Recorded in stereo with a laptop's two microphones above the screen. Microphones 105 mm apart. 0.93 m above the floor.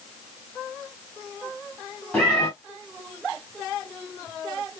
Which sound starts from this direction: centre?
A cat meowing, at 2.1 s.